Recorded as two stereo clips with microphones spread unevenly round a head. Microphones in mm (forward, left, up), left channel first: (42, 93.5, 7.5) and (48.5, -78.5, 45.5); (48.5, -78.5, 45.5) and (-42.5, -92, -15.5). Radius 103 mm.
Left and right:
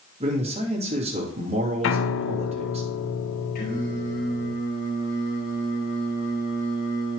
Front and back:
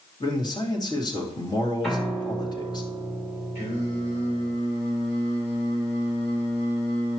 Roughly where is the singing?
Ahead left.